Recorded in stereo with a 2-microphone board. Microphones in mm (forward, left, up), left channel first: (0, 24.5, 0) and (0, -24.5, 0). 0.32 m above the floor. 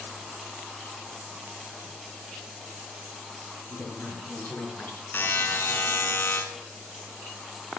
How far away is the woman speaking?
About 5 m.